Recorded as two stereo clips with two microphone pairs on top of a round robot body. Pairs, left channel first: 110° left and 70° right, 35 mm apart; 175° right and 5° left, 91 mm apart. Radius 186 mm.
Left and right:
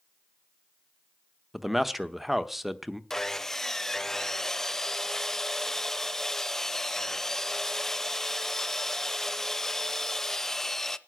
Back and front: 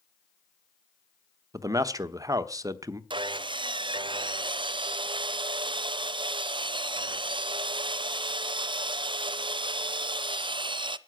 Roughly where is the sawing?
Ahead left.